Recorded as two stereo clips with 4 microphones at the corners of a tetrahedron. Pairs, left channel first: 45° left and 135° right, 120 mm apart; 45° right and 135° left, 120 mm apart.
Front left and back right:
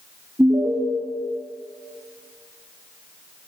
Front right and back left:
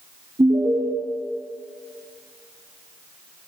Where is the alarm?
155° left, 3 m.